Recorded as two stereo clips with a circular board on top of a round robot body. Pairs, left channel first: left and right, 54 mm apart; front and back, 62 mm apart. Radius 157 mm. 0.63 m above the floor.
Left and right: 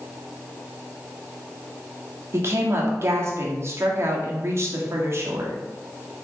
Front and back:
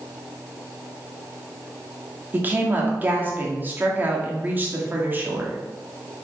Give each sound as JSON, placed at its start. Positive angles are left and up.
{"t": 2.3, "sound": "a woman speaking", "azimuth_deg": -120, "distance_m": 2.0}